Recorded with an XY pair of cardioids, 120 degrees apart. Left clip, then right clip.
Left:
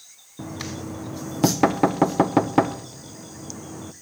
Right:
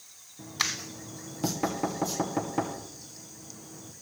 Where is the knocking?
65° left, 0.6 m.